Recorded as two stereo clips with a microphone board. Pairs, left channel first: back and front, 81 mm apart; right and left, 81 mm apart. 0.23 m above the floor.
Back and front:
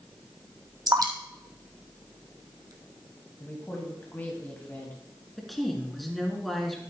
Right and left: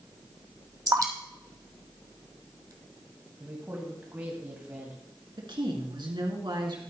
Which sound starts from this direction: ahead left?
Dripping, at 0.9 s.